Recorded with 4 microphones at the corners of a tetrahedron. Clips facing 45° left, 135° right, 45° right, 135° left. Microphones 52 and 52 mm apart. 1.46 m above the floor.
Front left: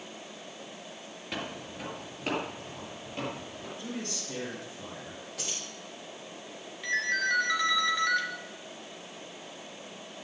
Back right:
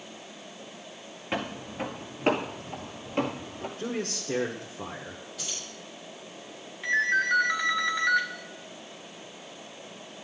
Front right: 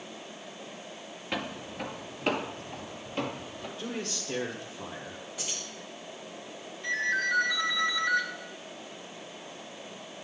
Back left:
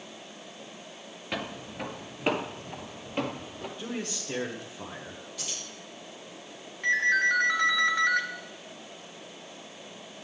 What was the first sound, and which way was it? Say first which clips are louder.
Footsteps: back right 5 dB, even; 140° right.